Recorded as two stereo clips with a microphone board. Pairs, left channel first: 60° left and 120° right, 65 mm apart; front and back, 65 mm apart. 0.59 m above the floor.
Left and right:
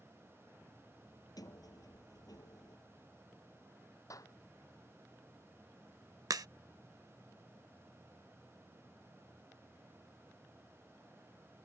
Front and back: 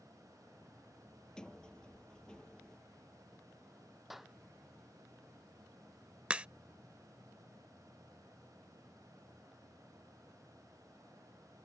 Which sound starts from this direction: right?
A crack, at 6.3 s.